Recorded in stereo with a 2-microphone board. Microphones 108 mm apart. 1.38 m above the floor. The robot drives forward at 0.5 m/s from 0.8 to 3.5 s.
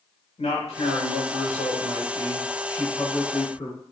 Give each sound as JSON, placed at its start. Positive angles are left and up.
{"t": 0.4, "sound": "a man speaking", "side_deg": 70, "distance_m": 1.5}